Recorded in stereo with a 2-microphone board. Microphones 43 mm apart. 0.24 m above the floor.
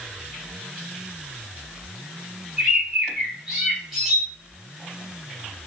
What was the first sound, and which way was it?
A bird, 5° right (ahead or behind).